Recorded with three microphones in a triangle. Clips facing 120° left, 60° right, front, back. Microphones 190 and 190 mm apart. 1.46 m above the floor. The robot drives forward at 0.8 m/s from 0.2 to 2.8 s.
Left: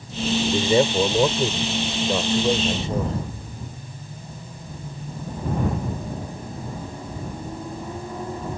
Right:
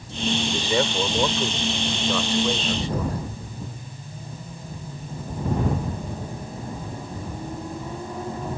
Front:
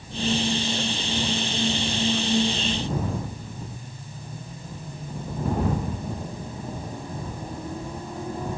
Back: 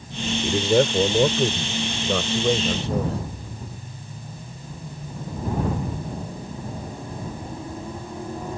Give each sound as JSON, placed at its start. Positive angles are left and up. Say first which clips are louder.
{"t": 0.4, "sound": "a man speaking", "louder": "left 8 dB, back 8 dB", "azimuth_deg": -175}